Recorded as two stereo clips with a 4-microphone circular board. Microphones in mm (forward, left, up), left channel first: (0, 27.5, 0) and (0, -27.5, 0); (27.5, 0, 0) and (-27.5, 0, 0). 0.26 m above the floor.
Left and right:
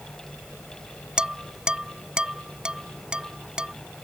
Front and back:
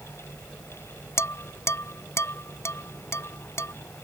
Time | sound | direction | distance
1.2 | dishes clattering | 20° right | ?